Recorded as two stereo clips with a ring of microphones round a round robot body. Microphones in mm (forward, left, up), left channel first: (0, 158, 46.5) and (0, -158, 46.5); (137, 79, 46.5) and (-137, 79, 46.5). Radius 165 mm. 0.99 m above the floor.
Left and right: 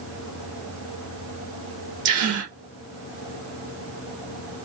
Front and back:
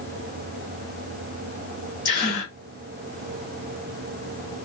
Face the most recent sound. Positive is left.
turn(degrees=-65)